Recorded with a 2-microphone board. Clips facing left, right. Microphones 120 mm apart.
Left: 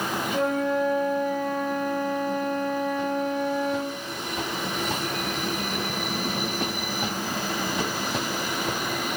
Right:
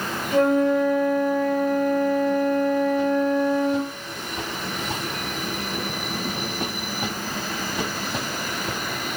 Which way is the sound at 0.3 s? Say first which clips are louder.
Right 7 dB; 65° right (ahead or behind).